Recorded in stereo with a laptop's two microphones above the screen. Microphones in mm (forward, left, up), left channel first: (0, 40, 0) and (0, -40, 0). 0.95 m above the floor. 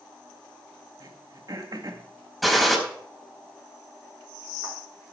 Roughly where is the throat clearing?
Right.